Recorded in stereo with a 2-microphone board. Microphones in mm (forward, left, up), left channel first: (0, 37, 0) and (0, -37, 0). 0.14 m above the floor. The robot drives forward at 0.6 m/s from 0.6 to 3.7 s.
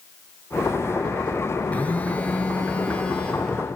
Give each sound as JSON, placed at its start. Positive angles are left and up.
{"t": 1.7, "sound": "a phone buzzing", "side_deg": 20, "distance_m": 2.0}